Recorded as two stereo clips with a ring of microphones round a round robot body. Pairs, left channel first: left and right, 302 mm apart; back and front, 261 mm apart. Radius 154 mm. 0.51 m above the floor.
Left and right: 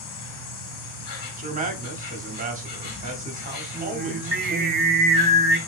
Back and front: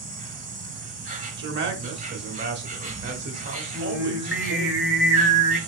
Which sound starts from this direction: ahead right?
A man speaking, at 1.4 s.